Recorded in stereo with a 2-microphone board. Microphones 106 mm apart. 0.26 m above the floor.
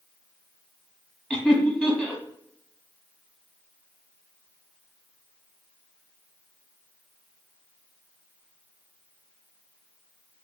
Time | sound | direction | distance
1.3 | laughter | 10° left (ahead or behind) | 1.4 m